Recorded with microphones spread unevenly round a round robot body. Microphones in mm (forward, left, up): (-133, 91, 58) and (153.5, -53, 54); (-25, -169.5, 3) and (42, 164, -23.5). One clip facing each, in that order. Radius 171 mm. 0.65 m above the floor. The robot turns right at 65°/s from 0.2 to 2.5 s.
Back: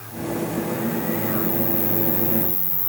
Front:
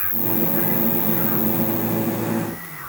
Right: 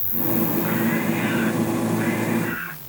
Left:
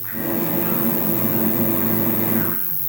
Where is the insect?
25° right; by 2.9 s 125° left.